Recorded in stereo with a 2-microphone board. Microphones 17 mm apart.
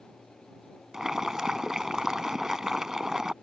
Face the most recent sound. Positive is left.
turn(degrees=-40)  # may be behind; listen again after turning